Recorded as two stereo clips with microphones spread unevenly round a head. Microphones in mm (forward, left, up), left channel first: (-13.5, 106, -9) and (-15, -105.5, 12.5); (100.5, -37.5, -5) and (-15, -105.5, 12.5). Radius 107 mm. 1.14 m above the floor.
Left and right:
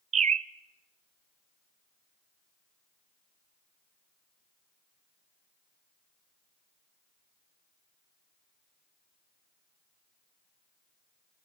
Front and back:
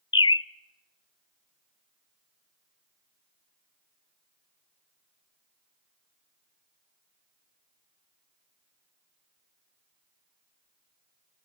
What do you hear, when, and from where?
0.1 s a bird: 30° right, 0.7 m